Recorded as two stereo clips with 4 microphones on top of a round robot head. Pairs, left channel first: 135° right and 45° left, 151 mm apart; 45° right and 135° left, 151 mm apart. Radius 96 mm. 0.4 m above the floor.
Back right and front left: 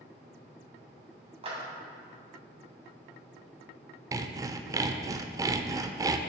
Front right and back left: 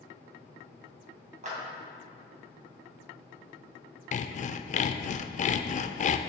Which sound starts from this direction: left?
A clap, at 1.4 s.